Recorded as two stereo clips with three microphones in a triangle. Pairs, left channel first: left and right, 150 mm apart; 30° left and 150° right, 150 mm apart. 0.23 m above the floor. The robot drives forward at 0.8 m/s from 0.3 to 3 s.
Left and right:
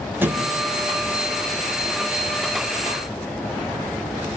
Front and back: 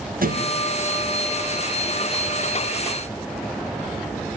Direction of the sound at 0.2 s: 165° right.